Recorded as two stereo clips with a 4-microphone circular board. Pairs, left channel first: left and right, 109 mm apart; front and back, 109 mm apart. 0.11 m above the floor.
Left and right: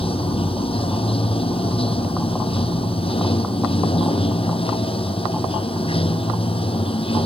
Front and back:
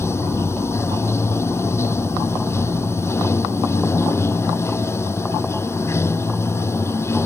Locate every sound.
0.0 s running water: 65° left